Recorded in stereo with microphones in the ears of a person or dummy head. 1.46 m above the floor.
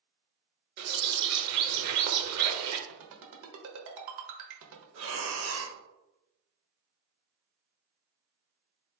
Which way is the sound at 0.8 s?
60° right (ahead or behind).